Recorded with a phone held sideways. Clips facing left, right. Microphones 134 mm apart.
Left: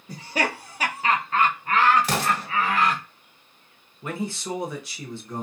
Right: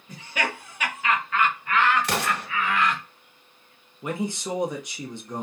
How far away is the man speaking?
About 0.7 m.